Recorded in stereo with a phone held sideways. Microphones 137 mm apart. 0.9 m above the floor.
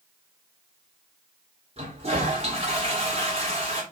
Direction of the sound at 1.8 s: 50° right (ahead or behind).